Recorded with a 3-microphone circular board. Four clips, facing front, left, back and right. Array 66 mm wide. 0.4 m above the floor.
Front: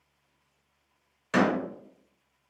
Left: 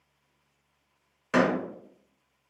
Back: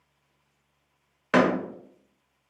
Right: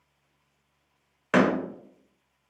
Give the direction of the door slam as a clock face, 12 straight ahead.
5 o'clock.